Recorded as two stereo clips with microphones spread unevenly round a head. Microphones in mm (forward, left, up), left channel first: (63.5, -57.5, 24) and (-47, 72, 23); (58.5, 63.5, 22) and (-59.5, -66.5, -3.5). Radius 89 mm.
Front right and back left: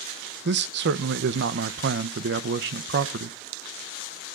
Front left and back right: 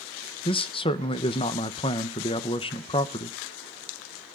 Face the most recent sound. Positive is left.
turn(degrees=110)